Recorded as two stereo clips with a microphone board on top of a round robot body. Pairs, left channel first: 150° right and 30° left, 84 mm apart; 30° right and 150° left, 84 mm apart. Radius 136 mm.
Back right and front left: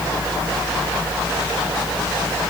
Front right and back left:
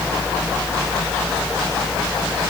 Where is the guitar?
I don't hear a guitar.